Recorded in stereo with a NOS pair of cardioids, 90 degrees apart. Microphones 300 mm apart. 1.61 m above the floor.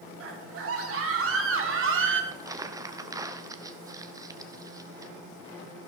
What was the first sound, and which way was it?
A scream, 50° right.